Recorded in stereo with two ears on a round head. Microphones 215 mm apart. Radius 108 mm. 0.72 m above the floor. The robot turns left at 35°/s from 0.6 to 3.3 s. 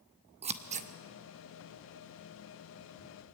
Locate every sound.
0.4 s scissors: 25° right (ahead or behind), 1.0 m; by 0.9 s 30° right (ahead or behind), 1.0 m